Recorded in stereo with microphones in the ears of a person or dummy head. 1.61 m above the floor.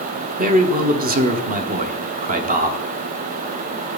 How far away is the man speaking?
About 1.0 m.